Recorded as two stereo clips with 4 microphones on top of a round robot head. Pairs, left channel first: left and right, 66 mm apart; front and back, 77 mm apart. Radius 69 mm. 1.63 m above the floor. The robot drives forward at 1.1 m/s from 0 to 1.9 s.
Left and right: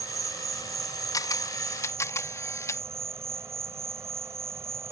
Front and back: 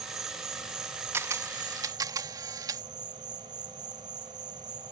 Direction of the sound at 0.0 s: 125° right.